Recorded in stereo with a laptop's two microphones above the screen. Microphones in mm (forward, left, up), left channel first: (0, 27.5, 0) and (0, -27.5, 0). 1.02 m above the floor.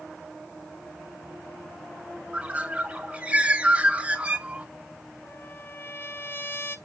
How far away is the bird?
About 2.5 m.